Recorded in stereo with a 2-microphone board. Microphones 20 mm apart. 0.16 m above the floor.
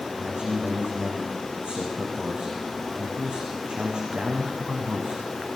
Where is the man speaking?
55° right (ahead or behind), 9 m.